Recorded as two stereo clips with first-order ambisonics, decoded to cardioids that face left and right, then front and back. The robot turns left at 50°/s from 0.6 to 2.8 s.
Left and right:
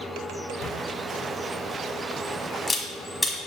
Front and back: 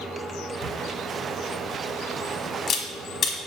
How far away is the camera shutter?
About 1.1 m.